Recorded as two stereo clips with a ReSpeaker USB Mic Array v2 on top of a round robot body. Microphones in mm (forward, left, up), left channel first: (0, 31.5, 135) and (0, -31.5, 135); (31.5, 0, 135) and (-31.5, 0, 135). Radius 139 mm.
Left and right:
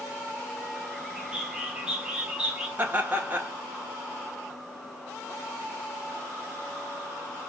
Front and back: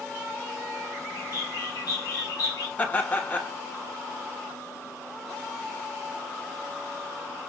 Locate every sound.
1.2 s a bird: 15° right, 1.0 m
2.8 s laughter: 50° right, 1.4 m